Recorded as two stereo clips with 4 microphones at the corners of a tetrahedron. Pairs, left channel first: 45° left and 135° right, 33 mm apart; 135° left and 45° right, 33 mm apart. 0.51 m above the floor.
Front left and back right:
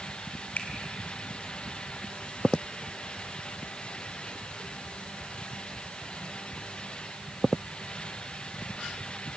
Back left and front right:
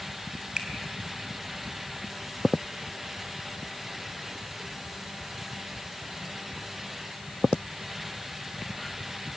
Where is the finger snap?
20° left, 3 m.